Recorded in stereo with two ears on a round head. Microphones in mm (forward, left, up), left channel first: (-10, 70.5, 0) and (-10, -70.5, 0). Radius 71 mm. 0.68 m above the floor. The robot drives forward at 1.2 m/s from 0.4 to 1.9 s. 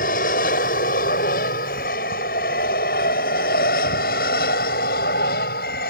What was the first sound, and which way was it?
An aircraft, 60° left (ahead or behind).